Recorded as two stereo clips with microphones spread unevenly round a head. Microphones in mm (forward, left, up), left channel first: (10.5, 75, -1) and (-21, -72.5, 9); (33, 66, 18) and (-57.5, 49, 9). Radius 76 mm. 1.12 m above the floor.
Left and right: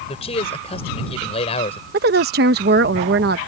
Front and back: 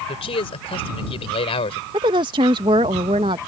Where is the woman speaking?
125° right.